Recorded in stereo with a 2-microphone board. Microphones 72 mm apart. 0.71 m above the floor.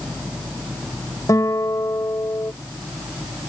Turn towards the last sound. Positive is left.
turn(degrees=50)  # may be behind; listen again after turning